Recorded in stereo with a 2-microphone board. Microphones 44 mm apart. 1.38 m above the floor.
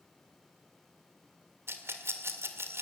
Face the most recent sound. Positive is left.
turn(degrees=-70)  # may be behind; listen again after turning